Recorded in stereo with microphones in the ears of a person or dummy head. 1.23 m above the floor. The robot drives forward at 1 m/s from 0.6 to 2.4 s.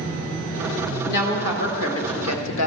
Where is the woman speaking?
45° left (ahead or behind), 2.0 m; by 2.7 s 85° left, 1.4 m.